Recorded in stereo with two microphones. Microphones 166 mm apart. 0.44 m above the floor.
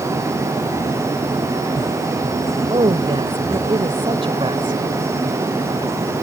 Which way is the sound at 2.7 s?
35° right (ahead or behind).